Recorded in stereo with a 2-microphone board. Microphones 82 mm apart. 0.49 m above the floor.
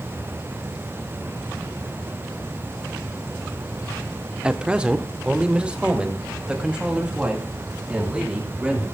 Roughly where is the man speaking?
Centre.